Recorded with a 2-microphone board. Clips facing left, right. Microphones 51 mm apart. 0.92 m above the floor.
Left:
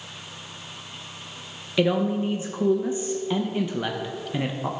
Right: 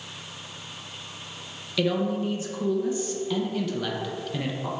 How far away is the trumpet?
I don't hear a trumpet.